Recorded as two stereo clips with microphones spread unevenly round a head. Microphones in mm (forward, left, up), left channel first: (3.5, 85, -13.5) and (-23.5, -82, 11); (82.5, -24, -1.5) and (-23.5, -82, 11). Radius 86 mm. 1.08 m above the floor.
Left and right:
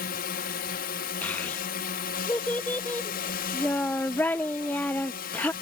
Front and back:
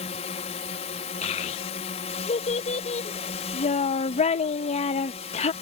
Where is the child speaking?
Straight ahead.